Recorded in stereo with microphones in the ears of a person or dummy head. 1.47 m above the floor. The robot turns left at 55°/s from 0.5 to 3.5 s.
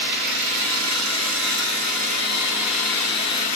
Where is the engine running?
60° right, 2.5 m; by 3.6 s 135° left, 2.5 m.